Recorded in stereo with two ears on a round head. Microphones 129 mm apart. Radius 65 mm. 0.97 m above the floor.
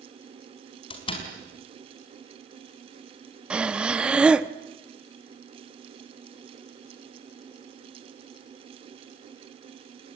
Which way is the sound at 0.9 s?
40° left (ahead or behind).